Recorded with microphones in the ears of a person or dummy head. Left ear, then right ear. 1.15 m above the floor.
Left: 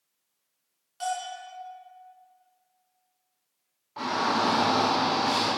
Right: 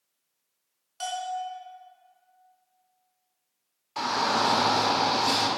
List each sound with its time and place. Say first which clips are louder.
1.0 s a bell: right 1 dB; 15° right (ahead or behind), 3 m
4.0 s a shout: right 1 dB; 75° right (ahead or behind), 3.5 m